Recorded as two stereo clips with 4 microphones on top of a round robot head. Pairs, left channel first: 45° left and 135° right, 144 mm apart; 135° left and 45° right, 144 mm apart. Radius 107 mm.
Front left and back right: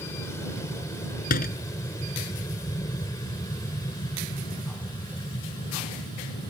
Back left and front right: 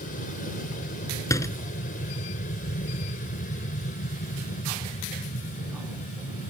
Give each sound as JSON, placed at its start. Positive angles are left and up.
{"t": 0.0, "sound": "an aircraft", "azimuth_deg": 115}
{"t": 1.3, "sound": "a door slam", "azimuth_deg": 65}